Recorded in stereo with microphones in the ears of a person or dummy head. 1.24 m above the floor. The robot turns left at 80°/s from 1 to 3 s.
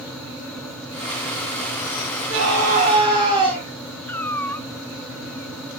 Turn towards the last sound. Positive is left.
turn(degrees=5)  # may be behind; listen again after turning